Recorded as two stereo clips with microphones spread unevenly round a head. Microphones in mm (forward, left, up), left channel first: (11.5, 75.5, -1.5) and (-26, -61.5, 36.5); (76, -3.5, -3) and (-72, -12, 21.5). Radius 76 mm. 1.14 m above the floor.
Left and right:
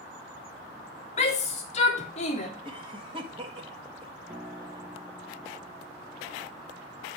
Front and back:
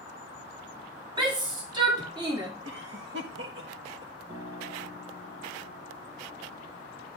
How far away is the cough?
About 1.7 m.